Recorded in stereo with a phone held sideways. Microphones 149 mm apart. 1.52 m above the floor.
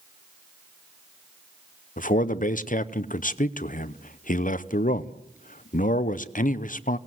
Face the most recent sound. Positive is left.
turn(degrees=70)  # may be behind; listen again after turning